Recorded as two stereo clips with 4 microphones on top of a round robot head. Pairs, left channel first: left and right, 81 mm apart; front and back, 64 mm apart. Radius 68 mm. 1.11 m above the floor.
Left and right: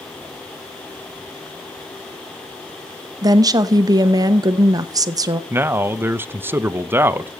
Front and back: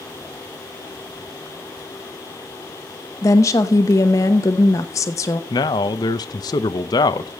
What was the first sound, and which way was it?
A woman speaking, 45° right.